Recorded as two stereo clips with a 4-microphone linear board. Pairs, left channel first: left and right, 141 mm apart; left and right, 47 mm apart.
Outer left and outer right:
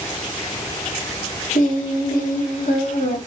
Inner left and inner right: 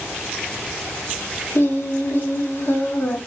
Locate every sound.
1.6 s singing: 70° left (ahead or behind), 1.5 m